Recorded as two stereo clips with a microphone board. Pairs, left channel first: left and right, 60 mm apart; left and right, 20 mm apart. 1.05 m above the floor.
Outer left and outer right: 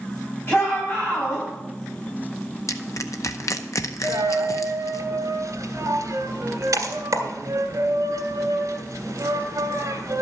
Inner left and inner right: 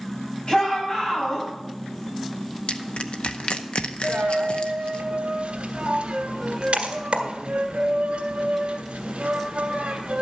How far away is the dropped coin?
About 1.7 m.